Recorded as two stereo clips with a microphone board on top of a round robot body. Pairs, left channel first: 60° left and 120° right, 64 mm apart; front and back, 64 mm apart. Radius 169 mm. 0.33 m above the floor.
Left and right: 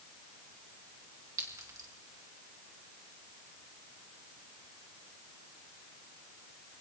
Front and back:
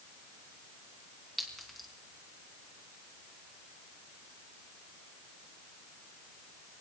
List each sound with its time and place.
1.4 s a clink: 90° right, 3 m